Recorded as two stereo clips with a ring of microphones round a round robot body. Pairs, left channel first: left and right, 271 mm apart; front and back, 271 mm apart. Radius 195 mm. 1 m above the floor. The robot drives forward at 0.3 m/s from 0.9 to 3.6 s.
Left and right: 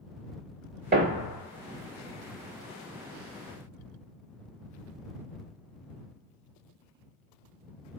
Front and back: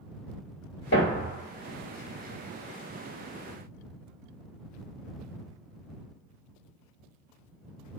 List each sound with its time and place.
0.9 s a thud: 50° right, 1.5 m; by 1.4 s 55° right, 1.4 m